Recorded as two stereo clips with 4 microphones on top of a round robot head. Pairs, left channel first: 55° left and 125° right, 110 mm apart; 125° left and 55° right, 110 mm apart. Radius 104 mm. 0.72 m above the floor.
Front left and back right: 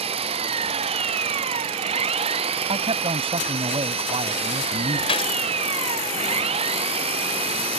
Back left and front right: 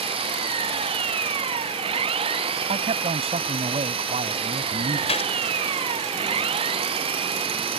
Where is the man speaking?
85° right.